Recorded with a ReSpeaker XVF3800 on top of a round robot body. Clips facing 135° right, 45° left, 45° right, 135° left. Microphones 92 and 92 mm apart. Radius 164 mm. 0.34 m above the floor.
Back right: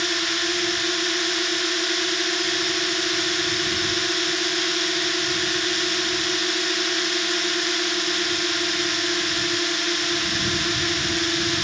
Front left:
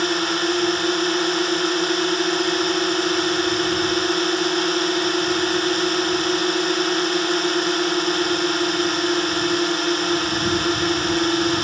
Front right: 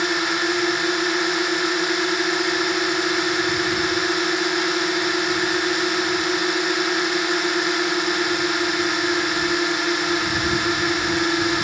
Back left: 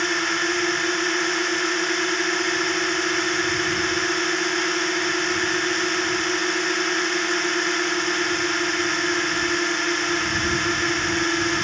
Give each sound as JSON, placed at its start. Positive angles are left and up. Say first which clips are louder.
{"t": 0.0, "sound": "a drone", "louder": "front left 6 dB, front right 2 dB", "azimuth_deg": 35}